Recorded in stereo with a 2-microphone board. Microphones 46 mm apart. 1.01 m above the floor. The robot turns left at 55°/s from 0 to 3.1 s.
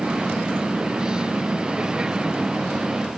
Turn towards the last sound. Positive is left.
No sound to turn to.